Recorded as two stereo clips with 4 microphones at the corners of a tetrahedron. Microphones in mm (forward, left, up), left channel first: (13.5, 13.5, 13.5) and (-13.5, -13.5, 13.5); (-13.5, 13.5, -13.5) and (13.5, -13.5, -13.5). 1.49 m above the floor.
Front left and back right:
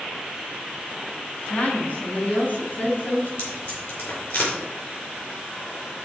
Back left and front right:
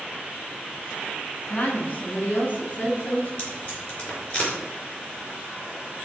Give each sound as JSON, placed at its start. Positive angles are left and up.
{"t": 1.5, "sound": "a woman speaking", "azimuth_deg": 90, "distance_m": 3.0}
{"t": 3.4, "sound": "tape being pulled", "azimuth_deg": 70, "distance_m": 4.5}